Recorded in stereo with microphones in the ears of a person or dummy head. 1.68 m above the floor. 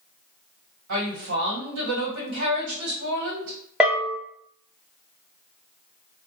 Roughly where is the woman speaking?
Right.